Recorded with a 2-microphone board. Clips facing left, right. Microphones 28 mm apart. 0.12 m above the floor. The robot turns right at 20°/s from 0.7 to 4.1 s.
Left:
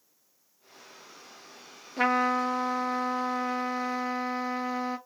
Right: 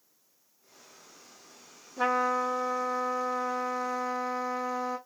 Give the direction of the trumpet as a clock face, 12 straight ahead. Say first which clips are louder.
Left 2 dB; 9 o'clock.